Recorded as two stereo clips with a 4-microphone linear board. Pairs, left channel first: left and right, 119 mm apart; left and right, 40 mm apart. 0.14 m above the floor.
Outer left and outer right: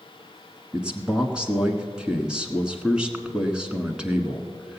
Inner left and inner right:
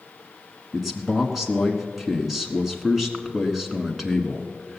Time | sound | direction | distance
0.7 | a man speaking | 10° right (ahead or behind) | 1.2 m